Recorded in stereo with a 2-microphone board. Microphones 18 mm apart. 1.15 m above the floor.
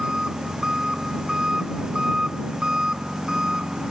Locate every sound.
0.0 s an engine running: 40° right (ahead or behind)